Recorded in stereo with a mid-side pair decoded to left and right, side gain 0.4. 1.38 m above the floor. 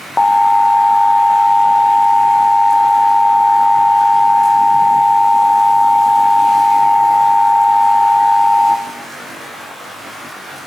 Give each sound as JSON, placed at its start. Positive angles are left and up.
{"t": 0.2, "sound": "an alarm", "azimuth_deg": 20, "distance_m": 1.1}